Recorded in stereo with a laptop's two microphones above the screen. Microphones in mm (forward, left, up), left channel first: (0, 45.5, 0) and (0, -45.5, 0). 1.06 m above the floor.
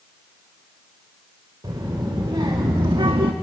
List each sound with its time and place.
1.6 s a child speaking: 55° right (ahead or behind), 3 m; by 3.3 s 80° right, 0.9 m